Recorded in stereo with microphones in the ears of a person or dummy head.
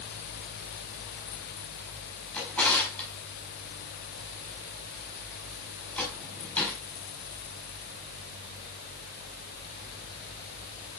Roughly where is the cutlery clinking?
No cutlery clinking in this recording.